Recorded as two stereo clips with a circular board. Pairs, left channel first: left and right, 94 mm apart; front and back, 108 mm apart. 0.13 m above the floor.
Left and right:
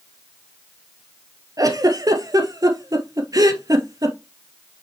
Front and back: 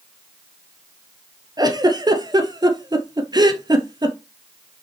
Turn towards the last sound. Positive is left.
turn(degrees=-135)